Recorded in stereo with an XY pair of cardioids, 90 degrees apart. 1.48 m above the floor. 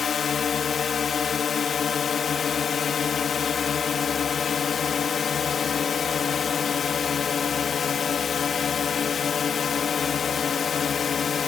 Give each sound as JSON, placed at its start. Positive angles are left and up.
{"t": 0.0, "sound": "a drone", "azimuth_deg": 55}